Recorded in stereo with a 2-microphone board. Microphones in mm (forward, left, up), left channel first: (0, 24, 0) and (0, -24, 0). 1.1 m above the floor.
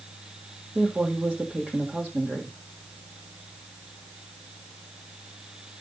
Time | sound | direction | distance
0.8 | a woman speaking | 25° right (ahead or behind) | 1.9 m